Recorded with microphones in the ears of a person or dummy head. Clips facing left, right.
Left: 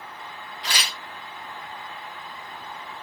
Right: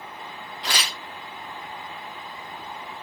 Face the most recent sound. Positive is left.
turn(degrees=-60)  # may be behind; listen again after turning